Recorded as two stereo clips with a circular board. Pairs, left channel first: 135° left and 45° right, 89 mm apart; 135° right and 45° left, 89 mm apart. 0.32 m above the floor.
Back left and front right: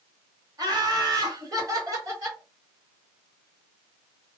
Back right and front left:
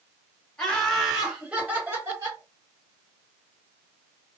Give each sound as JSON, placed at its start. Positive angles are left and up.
{"t": 0.6, "sound": "laughter", "azimuth_deg": -60, "distance_m": 1.4}